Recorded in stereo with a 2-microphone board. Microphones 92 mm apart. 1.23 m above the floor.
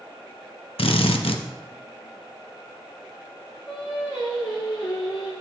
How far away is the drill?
About 0.8 m.